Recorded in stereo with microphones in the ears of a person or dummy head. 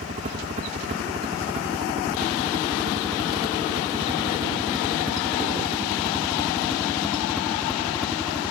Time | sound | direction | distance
0.0 | a helicopter | 35° right (ahead or behind) | ?